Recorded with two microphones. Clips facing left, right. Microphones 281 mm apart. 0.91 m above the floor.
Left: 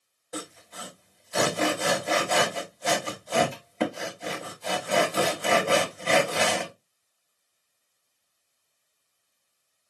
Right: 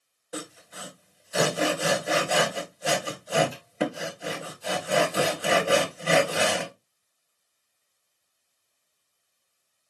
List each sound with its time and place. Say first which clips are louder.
0.3 s sawing: even; 5° right (ahead or behind), 1.6 m